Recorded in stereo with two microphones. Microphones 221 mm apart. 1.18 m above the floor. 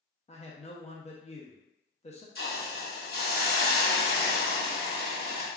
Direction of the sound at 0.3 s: 30° left (ahead or behind).